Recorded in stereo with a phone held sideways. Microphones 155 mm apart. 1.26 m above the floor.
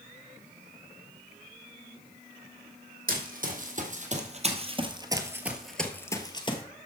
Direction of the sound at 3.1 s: 60° right (ahead or behind).